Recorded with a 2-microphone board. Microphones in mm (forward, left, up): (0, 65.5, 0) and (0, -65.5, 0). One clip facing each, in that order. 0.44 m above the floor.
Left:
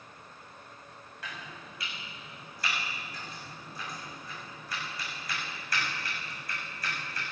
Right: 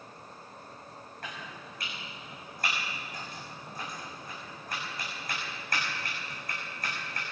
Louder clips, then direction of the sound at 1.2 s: Right 1 dB; 50° right (ahead or behind).